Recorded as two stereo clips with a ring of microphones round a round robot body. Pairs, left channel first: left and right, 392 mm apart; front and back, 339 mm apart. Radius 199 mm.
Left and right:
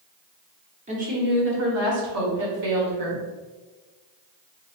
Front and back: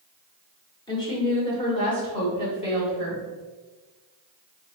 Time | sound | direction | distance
0.9 | a woman speaking | 55° right | 1.3 m